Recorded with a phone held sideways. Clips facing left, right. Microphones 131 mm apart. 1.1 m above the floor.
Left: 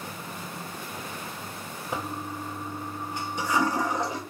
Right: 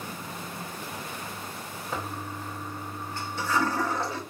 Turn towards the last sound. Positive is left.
turn(degrees=15)  # may be behind; listen again after turning